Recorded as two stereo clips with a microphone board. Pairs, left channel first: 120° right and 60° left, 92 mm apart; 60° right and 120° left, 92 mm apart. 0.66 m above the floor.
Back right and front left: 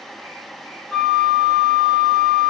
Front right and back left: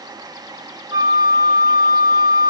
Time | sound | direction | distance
0.9 | a flute | 160° left | 0.7 m